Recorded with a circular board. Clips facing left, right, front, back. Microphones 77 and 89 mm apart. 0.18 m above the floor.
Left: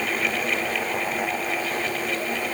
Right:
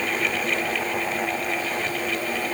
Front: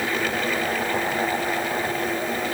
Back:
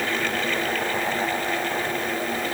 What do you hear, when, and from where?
Only background noise.